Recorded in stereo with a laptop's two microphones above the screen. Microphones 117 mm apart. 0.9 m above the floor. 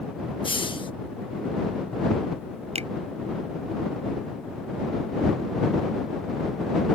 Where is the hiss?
40° left (ahead or behind).